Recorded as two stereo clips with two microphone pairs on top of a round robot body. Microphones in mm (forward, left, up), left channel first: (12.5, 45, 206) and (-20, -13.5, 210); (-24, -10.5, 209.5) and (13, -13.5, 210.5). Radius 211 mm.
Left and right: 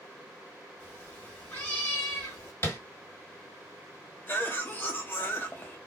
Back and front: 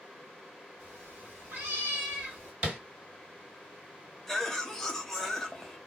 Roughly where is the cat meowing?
Ahead.